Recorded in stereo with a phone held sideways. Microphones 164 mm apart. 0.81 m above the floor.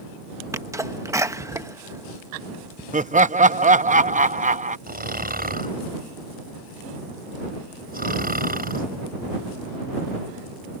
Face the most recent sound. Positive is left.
turn(degrees=-65)  # may be behind; listen again after turning